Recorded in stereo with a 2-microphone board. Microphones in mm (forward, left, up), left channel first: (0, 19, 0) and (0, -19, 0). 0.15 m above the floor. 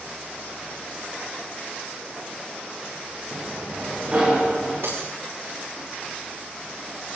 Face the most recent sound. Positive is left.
turn(degrees=-85)